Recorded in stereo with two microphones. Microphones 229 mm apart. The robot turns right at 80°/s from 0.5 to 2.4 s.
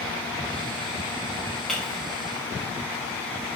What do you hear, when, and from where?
1.7 s breaking glass: centre (ahead or behind), 5.5 m; by 1.9 s 20° left (ahead or behind), 5.5 m